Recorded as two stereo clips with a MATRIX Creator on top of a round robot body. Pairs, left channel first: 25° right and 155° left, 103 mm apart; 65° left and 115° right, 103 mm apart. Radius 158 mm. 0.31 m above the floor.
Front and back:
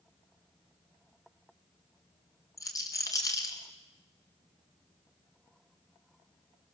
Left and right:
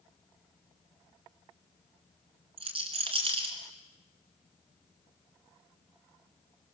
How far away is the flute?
No flute in this recording.